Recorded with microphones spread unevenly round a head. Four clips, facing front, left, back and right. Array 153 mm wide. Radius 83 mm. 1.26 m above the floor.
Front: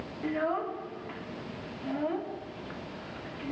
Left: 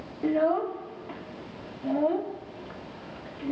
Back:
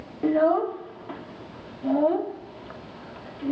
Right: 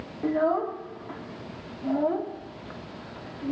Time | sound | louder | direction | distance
0.2 | a child speaking | even, back 10 dB | 165° left | 1.6 m